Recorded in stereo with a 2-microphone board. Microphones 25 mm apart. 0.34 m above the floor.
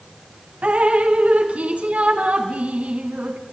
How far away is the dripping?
About 1.9 m.